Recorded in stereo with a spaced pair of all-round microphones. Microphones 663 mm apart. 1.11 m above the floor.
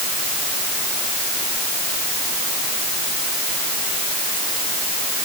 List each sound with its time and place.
Only background noise.